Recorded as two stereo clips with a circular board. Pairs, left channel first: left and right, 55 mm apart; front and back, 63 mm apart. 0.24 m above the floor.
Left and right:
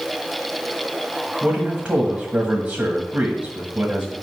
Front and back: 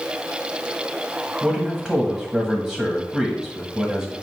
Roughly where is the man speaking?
Behind right.